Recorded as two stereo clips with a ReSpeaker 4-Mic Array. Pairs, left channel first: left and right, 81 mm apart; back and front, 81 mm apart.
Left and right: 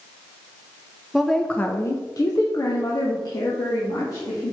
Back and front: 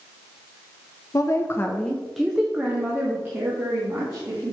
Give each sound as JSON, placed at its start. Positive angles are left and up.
{"t": 1.1, "sound": "a woman speaking", "azimuth_deg": -175, "distance_m": 0.8}